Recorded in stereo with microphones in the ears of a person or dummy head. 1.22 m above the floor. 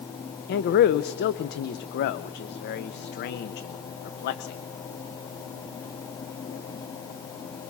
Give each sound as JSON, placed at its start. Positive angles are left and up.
{"t": 0.5, "sound": "a man speaking", "side_deg": 50, "distance_m": 0.6}